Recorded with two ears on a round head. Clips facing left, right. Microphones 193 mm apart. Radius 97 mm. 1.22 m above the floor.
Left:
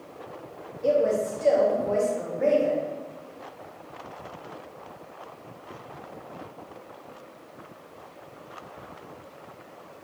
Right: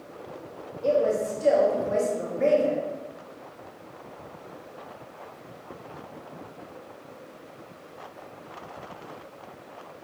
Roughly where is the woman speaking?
Centre.